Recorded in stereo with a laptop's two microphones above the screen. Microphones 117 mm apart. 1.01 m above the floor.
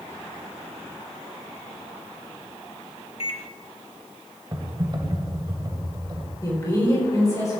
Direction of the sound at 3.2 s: 50° left (ahead or behind).